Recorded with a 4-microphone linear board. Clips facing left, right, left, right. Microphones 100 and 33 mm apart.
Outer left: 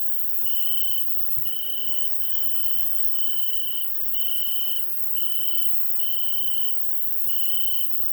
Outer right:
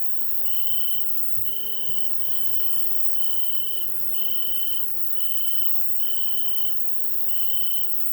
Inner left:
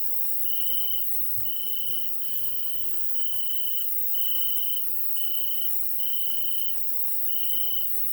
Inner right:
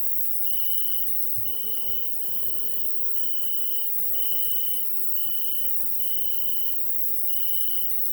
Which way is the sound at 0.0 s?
50° left (ahead or behind).